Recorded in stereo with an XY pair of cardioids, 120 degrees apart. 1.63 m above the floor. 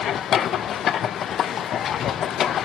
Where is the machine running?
55° left, 0.7 m.